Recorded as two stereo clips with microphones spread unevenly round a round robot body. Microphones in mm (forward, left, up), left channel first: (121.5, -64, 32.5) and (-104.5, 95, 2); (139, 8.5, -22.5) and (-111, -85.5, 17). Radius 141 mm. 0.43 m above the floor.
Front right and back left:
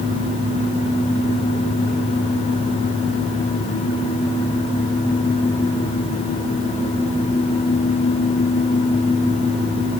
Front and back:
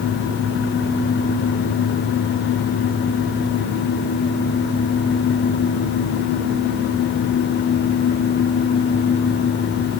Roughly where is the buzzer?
I don't hear a buzzer.